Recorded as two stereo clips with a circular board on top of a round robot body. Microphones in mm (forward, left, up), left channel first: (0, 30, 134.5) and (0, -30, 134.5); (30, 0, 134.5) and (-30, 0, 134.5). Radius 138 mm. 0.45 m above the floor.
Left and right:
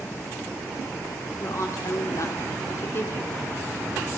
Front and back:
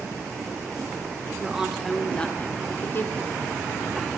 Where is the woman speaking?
105° left, 2.0 m; by 3.4 s 40° left, 3 m.